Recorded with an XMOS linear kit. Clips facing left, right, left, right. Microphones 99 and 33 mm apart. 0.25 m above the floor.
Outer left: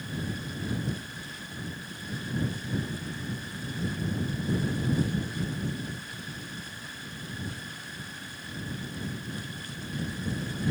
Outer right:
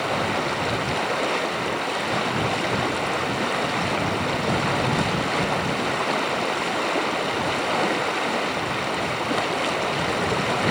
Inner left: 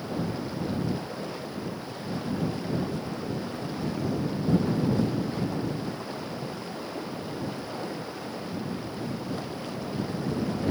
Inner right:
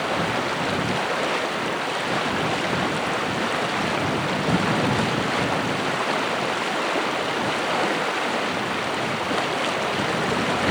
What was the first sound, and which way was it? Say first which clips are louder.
Running water: outer right 13 dB, inner right 9 dB; 85° right.